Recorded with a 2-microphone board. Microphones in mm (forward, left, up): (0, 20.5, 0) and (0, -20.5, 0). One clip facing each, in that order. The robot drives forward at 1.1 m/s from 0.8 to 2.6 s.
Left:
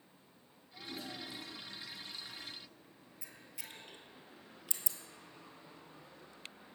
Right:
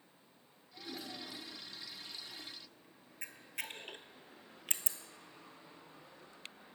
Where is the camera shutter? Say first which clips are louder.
Right 9 dB; 60° right (ahead or behind), 0.7 m.